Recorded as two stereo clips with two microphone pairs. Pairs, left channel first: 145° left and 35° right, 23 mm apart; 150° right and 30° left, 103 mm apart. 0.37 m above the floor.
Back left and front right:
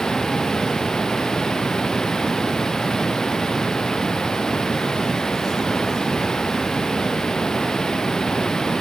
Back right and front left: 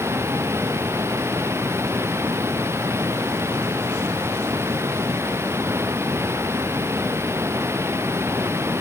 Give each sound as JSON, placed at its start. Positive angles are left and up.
{"t": 0.0, "sound": "running water", "azimuth_deg": 95}